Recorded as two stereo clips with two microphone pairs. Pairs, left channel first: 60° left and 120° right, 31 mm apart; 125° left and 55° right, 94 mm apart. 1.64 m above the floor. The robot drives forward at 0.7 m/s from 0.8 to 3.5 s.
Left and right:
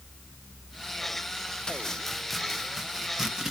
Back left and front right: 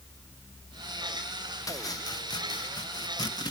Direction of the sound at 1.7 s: 115° left.